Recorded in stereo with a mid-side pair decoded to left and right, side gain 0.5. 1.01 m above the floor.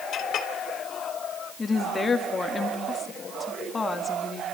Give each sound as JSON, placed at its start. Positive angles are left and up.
{"t": 0.1, "sound": "a clink", "azimuth_deg": 60, "distance_m": 2.5}
{"t": 1.6, "sound": "a woman speaking", "azimuth_deg": 35, "distance_m": 1.9}